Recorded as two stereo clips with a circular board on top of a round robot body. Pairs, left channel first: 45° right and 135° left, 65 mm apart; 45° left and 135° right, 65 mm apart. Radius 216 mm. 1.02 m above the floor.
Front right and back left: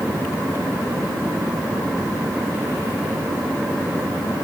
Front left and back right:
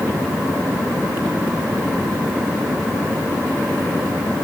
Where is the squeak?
I don't hear a squeak.